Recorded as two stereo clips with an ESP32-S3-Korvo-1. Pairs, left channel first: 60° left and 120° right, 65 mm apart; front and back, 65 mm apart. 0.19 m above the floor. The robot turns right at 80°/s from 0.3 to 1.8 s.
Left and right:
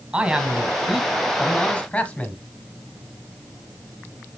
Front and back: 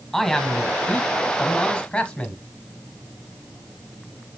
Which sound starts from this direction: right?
A man speaking, at 0.1 s.